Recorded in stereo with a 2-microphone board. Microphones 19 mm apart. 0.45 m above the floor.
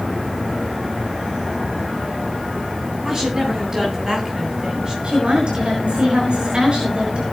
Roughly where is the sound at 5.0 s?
Right.